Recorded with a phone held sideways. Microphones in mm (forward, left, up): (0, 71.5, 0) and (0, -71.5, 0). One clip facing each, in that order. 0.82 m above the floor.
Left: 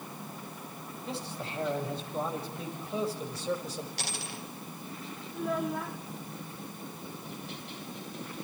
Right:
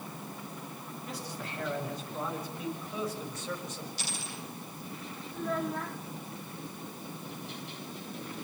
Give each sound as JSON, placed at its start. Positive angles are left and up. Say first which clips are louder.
{"t": 1.1, "sound": "a man speaking", "louder": "left 3 dB", "side_deg": 25, "distance_m": 6.0}
{"t": 4.0, "sound": "a dropped coin", "louder": "left 1 dB", "side_deg": 65, "distance_m": 5.0}
{"t": 5.3, "sound": "a child speaking", "louder": "left 1 dB", "side_deg": 5, "distance_m": 1.5}